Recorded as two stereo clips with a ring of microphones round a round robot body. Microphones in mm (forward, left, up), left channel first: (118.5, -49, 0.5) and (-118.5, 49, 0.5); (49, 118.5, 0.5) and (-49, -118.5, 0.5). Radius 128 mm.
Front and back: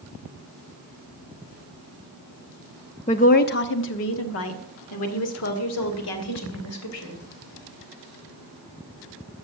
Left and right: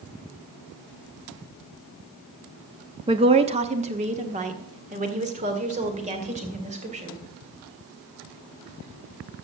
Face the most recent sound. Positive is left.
turn(degrees=-50)